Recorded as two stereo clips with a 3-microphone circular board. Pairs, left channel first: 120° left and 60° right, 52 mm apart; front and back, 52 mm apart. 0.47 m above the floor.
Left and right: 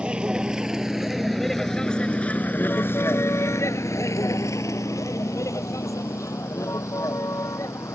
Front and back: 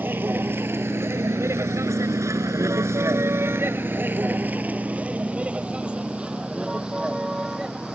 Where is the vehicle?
130° right; by 8.0 s 100° left.